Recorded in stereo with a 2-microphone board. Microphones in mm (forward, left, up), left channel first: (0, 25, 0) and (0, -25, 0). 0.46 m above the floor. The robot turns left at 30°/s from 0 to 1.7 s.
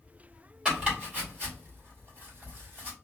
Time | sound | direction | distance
0.7 | chopping | 20° right (ahead or behind) | 1.6 m